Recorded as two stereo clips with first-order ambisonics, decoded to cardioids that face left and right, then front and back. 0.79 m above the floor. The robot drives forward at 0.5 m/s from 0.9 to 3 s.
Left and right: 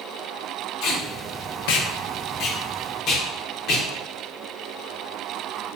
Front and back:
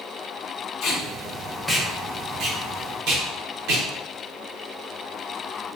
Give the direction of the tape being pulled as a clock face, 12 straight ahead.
10 o'clock.